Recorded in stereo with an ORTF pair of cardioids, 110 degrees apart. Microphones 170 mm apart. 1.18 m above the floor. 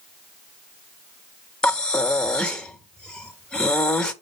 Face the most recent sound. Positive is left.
turn(degrees=5)